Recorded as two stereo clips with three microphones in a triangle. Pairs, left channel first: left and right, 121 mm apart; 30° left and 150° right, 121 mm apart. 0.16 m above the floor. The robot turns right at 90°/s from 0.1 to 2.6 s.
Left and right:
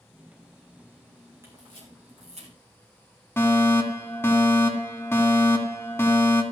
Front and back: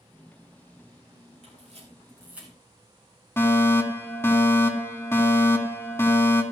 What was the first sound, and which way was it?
A camera shutter, 155° right.